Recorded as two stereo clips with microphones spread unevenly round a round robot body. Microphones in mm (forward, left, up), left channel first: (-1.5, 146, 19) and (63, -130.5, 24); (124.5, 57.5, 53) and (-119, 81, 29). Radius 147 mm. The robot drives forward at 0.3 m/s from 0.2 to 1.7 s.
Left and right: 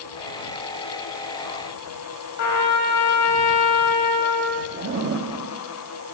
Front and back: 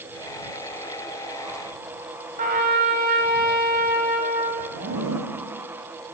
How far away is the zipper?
About 0.7 m.